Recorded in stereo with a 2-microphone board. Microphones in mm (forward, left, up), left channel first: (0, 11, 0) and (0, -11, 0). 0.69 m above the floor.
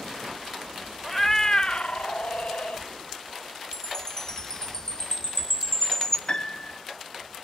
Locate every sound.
1.0 s a cat meowing: 10° left (ahead or behind), 0.8 m; by 2.8 s 70° left (ahead or behind), 1.0 m
3.7 s a chime: 25° left (ahead or behind), 1.3 m
6.3 s a piano: 45° left (ahead or behind), 1.1 m